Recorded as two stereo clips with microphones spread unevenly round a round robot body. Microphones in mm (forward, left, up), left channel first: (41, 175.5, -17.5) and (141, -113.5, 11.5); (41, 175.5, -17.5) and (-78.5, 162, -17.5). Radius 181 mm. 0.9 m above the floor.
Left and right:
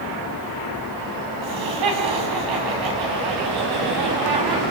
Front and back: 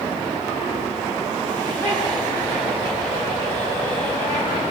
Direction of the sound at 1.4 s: 75° right.